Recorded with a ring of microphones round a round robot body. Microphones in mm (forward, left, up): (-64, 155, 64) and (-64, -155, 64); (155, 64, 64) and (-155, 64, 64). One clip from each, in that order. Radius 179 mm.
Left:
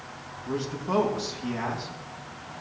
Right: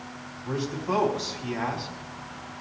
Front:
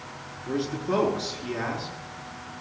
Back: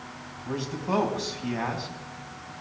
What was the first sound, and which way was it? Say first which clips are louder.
A man speaking: right 1 dB, front 2 dB; 165° right.